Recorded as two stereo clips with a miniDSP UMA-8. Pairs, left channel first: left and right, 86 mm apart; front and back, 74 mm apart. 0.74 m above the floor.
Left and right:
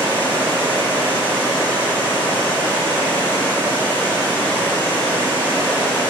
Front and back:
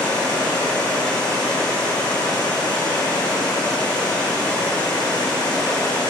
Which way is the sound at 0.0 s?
20° left.